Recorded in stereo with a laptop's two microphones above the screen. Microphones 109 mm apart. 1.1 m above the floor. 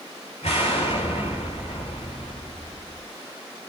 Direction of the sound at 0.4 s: 70° left (ahead or behind).